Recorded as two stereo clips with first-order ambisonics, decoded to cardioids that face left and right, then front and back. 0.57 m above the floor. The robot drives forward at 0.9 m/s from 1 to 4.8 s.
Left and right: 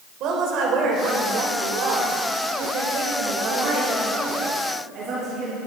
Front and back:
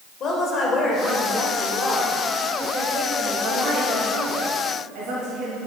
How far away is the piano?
No piano in this recording.